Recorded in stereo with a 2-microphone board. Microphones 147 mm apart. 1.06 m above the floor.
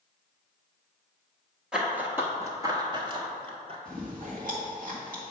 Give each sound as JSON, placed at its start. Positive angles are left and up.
{"t": 1.7, "sound": "running footsteps", "side_deg": -5, "distance_m": 1.1}
{"t": 3.9, "sound": "chewing", "side_deg": -65, "distance_m": 1.9}